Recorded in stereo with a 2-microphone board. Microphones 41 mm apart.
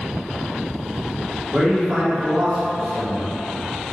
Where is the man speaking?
5° right (ahead or behind), 1.3 m.